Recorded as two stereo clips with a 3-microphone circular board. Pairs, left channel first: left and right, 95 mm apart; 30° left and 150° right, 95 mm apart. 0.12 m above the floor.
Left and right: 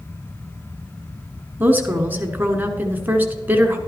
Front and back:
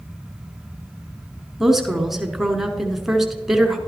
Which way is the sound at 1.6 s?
70° right.